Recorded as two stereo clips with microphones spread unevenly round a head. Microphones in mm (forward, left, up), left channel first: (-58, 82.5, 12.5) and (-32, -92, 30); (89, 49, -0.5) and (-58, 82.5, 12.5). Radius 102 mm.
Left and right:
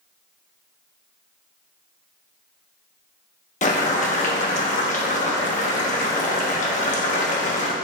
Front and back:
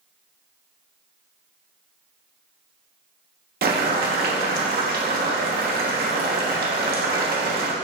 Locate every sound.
3.6 s boiling: 150° left, 1.4 m